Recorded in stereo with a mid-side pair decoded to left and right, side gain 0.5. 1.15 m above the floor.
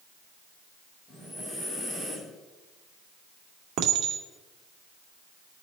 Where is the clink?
70° right, 2 m.